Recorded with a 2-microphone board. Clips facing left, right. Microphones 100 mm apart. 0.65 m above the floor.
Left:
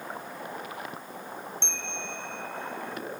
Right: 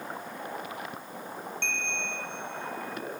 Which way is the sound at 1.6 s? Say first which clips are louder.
Right 2 dB; 25° left (ahead or behind).